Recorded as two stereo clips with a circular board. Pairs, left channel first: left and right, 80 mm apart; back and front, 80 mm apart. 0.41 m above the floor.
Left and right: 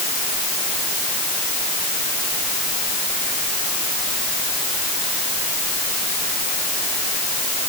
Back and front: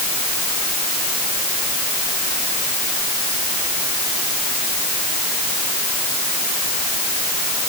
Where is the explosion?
I don't hear an explosion.